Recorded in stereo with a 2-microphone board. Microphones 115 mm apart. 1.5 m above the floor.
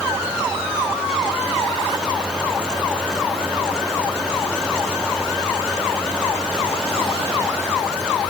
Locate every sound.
Only background noise.